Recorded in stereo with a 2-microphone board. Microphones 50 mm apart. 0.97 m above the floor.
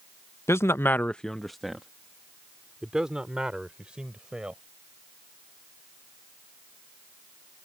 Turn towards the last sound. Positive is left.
turn(degrees=-20)  # may be behind; listen again after turning